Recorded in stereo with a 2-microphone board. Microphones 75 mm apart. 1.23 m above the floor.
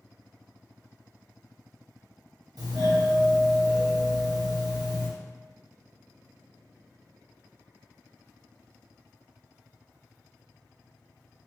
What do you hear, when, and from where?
2.6 s a doorbell: 60° right (ahead or behind), 0.7 m